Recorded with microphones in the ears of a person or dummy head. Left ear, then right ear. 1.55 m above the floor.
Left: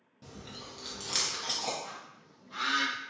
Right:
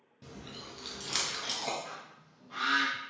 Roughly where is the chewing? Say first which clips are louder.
Even; centre.